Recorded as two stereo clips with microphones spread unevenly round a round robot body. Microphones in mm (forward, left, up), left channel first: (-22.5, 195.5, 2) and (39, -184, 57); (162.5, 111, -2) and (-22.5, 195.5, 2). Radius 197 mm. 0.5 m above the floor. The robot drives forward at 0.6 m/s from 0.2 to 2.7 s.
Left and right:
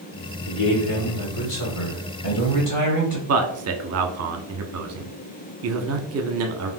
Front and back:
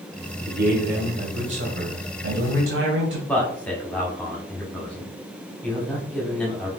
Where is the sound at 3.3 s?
100° right, 0.7 m.